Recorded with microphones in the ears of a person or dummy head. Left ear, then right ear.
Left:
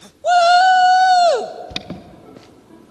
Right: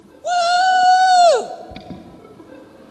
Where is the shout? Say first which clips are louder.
Left 4 dB; 25° left (ahead or behind), 1.1 m; by 1.5 s 25° right (ahead or behind), 0.7 m.